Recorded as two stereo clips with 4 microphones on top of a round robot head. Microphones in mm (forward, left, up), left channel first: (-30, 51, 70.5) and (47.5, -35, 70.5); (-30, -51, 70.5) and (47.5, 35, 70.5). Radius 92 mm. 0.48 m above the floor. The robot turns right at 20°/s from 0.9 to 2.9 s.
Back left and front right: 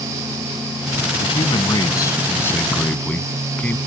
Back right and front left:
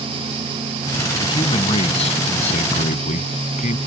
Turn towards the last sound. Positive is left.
turn(degrees=-150)